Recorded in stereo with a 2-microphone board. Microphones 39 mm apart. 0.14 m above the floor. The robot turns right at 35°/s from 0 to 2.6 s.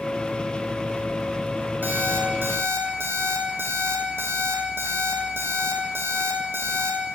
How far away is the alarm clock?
About 2.5 m.